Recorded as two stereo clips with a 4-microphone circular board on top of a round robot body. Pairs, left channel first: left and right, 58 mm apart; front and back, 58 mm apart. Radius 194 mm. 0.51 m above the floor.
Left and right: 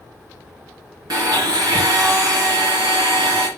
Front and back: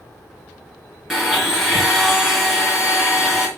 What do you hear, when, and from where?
1.1 s a blender: 95° right, 3 m